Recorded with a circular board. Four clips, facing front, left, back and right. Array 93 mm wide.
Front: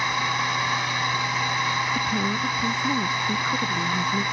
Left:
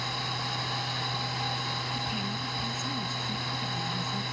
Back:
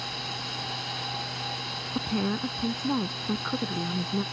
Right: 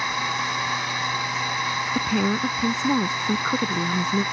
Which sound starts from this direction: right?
A woman speaking, at 1.9 s.